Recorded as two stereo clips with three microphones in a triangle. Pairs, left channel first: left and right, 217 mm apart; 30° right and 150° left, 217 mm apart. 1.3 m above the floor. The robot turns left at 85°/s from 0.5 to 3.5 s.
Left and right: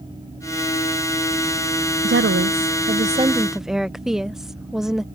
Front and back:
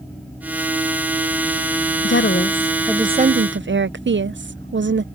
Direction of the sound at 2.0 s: 55° right.